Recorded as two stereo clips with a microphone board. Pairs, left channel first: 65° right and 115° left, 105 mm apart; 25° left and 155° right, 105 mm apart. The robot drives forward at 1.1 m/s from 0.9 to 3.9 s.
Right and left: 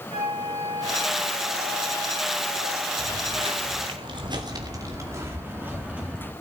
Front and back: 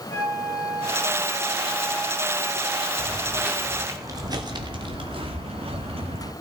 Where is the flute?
95° left, 8 m; by 2.9 s 110° left, 8.5 m.